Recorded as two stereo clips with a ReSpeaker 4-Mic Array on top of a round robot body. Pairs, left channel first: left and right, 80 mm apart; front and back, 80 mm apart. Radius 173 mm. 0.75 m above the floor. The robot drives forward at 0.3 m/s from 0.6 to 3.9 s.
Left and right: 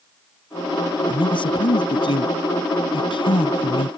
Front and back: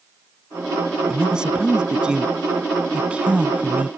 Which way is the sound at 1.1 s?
100° left.